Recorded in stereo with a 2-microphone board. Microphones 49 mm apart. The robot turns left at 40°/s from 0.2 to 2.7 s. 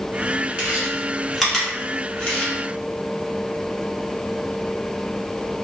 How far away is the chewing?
About 0.9 m.